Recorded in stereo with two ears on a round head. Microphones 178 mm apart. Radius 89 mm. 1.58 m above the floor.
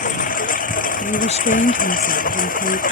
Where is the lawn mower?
40° left (ahead or behind); by 2.9 s 45° left (ahead or behind).